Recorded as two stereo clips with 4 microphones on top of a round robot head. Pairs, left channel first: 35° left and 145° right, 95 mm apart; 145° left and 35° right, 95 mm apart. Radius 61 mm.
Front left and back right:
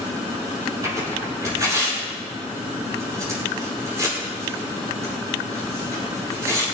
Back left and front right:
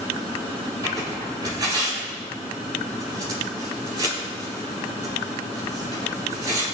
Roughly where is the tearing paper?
Right.